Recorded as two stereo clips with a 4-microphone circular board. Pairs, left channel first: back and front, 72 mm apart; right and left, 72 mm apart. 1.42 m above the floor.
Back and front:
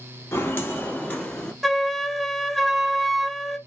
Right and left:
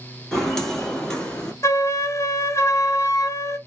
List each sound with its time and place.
0.3 s footsteps: 175° right, 1.6 m; by 1.5 s 140° right, 1.4 m
1.6 s a flute: 95° right, 0.6 m